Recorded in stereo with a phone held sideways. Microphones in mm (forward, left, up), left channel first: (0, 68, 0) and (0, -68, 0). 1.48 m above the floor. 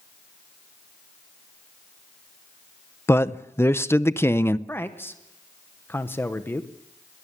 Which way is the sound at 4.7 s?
15° left (ahead or behind).